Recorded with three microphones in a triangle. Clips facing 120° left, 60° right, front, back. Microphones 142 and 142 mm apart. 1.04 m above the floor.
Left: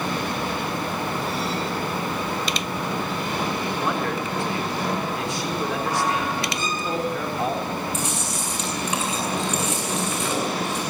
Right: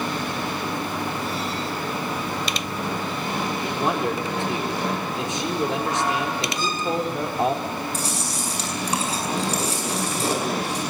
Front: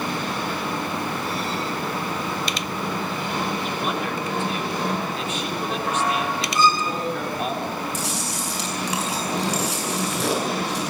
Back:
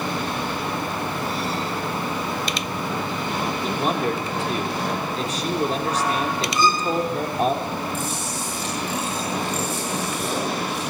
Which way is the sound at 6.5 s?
110° left.